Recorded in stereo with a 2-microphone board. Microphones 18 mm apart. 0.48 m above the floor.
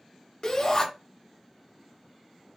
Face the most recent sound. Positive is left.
turn(degrees=40)  # may be behind; listen again after turning